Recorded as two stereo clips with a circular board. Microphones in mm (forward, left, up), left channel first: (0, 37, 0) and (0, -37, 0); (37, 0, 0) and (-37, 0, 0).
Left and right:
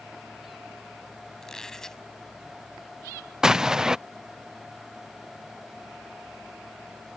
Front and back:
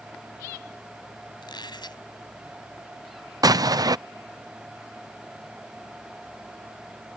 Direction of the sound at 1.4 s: 5° left.